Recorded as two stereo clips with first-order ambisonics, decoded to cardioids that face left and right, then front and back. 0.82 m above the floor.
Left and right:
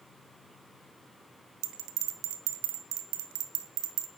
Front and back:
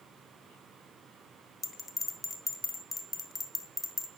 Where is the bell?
80° right, 1.0 m.